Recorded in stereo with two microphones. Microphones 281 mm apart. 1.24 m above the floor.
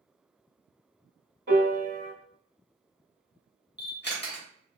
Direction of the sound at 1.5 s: 35° right (ahead or behind).